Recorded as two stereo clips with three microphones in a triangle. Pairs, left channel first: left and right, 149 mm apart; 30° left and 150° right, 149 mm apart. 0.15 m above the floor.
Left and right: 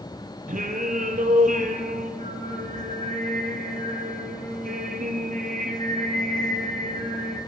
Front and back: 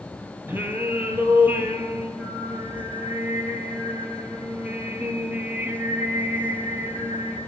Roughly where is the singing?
Right.